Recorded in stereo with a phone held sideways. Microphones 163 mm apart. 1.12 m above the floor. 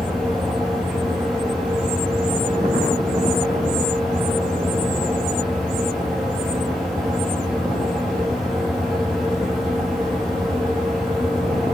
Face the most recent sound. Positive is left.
turn(degrees=0)  # may be behind; listen again after turning